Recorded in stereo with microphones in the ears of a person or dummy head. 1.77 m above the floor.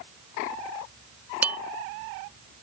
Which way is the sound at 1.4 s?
10° right (ahead or behind).